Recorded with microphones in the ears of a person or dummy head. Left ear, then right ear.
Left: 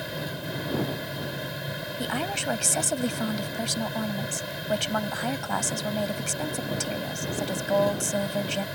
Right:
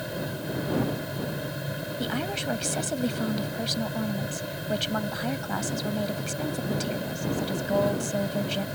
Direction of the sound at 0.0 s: 15° left (ahead or behind).